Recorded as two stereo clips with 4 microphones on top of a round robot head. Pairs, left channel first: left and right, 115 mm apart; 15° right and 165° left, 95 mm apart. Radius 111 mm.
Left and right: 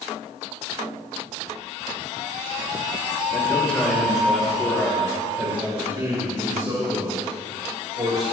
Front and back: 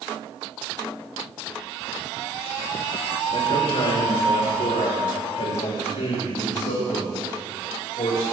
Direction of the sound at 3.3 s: 15° left.